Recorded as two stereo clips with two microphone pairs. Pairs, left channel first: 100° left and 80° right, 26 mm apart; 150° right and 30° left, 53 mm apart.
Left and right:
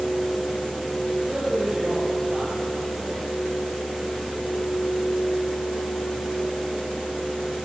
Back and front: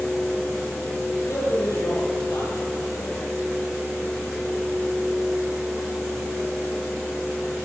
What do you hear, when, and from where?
1.3 s a man speaking: 135° right, 8 m